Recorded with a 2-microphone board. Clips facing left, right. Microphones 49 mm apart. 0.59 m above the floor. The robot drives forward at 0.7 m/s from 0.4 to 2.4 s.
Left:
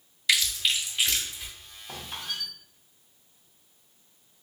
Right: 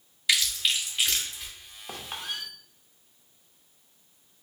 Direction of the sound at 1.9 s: 55° right (ahead or behind).